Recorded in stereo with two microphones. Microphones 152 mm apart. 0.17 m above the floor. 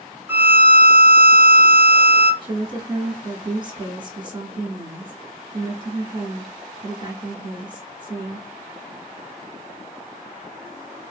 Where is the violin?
15° right (ahead or behind), 0.9 m.